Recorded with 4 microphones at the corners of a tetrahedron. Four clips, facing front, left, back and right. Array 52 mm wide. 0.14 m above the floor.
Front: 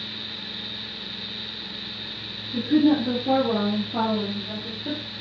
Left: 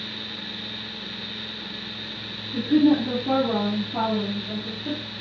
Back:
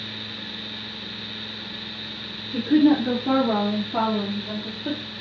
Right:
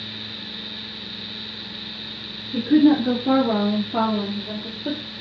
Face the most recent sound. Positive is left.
turn(degrees=-95)